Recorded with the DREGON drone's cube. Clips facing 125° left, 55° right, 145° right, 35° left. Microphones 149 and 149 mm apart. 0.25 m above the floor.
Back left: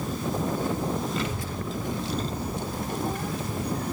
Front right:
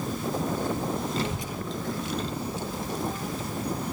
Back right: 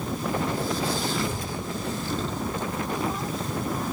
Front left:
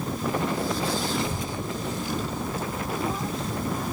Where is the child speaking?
25° right, 1.3 m; by 3.9 s 125° left, 3.5 m.